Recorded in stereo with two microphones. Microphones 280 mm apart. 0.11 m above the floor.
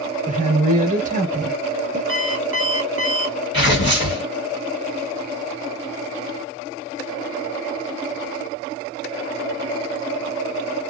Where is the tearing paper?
40° left (ahead or behind), 2 m.